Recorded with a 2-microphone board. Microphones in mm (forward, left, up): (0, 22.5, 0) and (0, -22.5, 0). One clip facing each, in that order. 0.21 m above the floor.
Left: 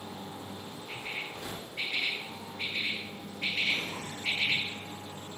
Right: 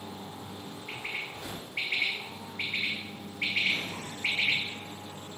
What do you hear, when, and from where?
0.9 s a bird: 65° right (ahead or behind), 3.5 m